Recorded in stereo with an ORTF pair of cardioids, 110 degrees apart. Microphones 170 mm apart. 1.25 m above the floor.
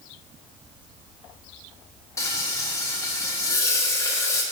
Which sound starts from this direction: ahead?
Frying, at 2.2 s.